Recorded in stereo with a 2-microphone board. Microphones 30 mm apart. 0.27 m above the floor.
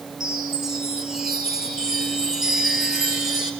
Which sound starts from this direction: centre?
A chime, at 0.2 s.